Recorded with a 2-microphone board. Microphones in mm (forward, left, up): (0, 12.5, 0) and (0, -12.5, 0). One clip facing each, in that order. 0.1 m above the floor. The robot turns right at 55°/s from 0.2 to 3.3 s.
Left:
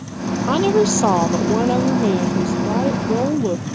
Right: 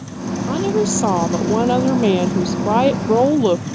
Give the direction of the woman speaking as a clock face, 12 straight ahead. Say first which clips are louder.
Left 3 dB; 8 o'clock.